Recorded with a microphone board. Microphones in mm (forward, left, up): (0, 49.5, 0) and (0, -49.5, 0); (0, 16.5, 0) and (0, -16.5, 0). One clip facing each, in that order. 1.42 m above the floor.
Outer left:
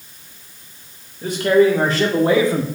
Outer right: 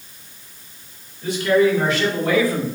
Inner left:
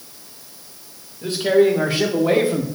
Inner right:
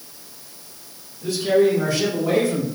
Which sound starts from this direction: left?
A man speaking, at 1.2 s.